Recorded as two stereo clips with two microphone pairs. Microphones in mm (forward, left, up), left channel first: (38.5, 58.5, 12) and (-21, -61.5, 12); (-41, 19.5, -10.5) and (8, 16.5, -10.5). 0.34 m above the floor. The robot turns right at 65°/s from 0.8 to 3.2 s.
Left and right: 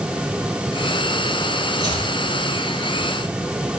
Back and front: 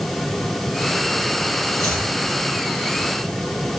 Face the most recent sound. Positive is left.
turn(degrees=-85)